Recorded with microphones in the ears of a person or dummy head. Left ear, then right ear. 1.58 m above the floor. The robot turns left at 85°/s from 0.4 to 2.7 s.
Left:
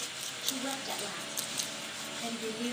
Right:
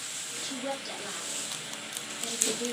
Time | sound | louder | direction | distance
0.4 | a woman speaking | even | 170° right | 2.5 m